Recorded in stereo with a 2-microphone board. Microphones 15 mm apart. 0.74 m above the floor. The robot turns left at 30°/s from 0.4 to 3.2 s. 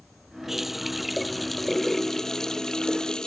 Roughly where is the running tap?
Behind.